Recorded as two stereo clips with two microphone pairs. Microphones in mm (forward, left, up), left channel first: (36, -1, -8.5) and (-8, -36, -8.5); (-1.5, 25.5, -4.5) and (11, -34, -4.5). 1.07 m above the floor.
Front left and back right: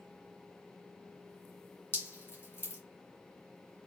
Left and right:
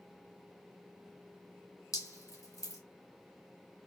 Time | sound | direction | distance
1.9 | dripping | 90° left | 2 m